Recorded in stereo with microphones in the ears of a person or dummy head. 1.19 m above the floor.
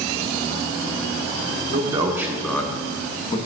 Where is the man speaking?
30° right (ahead or behind), 0.9 m; by 3.4 s 35° left (ahead or behind), 1.2 m.